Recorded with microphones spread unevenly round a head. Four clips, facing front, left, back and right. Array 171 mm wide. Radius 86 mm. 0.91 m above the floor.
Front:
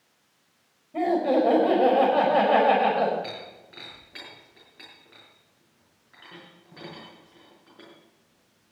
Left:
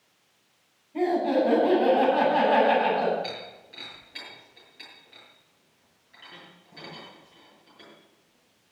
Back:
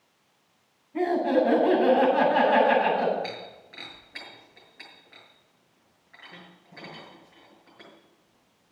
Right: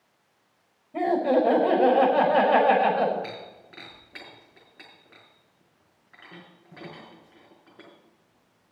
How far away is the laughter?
About 5 m.